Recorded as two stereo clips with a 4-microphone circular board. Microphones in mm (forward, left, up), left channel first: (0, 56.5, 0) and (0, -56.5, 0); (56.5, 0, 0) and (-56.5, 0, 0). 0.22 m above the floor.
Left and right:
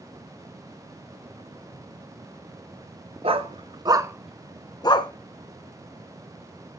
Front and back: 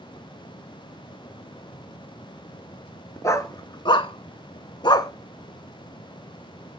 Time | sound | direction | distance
3.2 | a dog barking | 65° right | 1.5 m